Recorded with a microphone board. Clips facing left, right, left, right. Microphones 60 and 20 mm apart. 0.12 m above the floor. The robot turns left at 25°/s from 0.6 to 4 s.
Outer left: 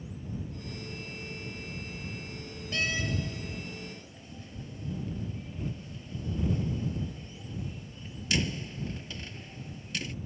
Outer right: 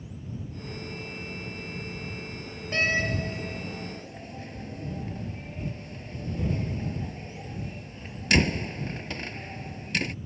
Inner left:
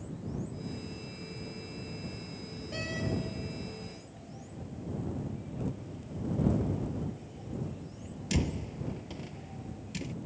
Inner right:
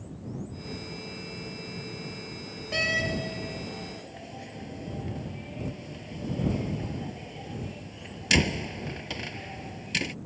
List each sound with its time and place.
2.7 s a door slam: 40° right (ahead or behind); by 10.2 s 60° right (ahead or behind)